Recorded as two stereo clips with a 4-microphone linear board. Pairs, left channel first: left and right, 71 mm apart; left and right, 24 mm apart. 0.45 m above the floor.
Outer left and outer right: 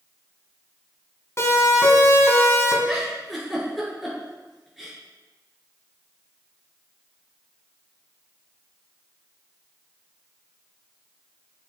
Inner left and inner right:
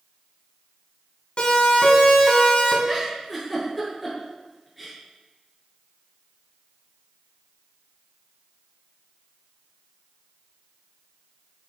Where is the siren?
40° left (ahead or behind), 5.5 m; by 2.8 s 35° left (ahead or behind), 4.5 m.